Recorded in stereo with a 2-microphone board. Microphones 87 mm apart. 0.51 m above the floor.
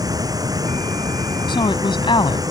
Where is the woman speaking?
70° left (ahead or behind).